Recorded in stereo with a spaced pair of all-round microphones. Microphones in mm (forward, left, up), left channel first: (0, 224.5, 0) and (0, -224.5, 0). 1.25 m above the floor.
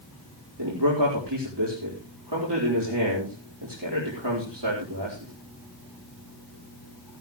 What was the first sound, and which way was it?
A man speaking, 60° right (ahead or behind).